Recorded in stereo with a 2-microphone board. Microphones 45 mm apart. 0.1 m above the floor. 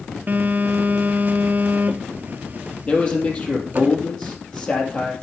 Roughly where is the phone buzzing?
Right.